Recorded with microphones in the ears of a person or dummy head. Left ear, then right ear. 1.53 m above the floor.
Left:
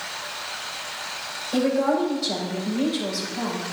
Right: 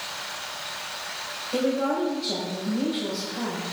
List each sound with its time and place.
1.5 s a woman speaking: 20° left (ahead or behind), 6 m